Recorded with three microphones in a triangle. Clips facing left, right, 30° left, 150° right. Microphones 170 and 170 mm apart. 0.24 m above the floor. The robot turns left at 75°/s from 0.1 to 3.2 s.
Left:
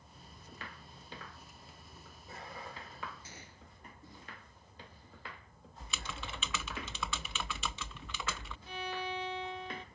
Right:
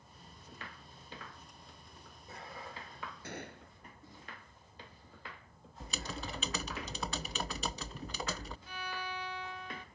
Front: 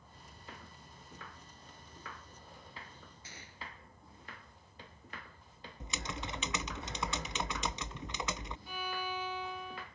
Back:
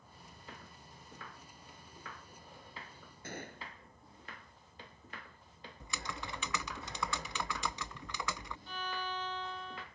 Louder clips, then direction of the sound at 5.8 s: Right 3 dB, front 2 dB; 40° right.